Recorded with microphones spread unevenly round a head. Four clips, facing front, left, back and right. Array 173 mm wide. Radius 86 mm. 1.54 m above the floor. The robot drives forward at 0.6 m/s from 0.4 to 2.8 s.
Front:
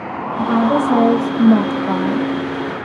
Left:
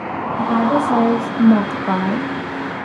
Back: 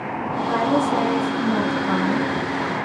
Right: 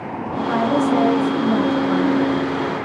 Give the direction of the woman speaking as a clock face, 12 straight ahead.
11 o'clock.